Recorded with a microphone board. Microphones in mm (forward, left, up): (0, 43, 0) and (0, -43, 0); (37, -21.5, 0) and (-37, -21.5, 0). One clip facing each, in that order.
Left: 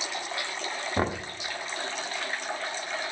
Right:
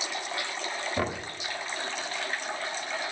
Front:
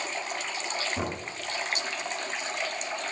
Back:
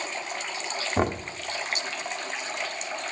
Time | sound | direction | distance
1.0 | knocking | 145° left | 0.9 m